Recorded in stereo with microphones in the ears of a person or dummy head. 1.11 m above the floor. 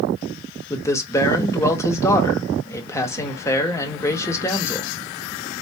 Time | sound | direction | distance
0.7 | a man speaking | 20° left (ahead or behind) | 0.8 m